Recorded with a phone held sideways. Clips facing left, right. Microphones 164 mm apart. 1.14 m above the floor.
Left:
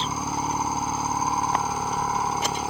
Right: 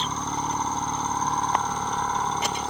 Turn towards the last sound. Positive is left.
turn(degrees=10)  # may be behind; listen again after turning